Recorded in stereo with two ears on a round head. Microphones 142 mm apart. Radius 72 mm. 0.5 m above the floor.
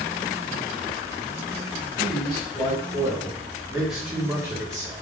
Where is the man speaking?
25° left (ahead or behind), 1.4 m; by 5.0 s 25° right (ahead or behind), 1.0 m.